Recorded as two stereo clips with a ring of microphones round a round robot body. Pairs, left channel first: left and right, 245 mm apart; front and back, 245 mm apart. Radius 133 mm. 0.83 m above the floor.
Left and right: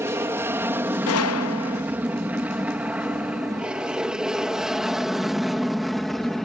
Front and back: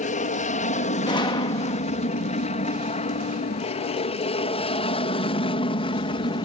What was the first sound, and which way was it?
An aircraft, 20° right.